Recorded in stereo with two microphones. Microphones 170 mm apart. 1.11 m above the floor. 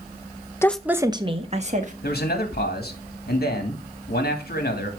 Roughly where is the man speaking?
Left.